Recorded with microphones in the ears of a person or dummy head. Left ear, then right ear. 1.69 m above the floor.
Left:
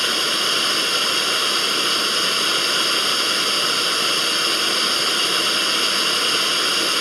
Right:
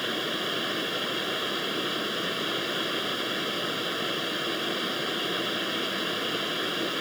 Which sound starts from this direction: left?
Running water, at 0.0 s.